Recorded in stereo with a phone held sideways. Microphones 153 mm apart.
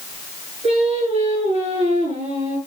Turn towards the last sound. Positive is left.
turn(degrees=-40)  # may be behind; listen again after turning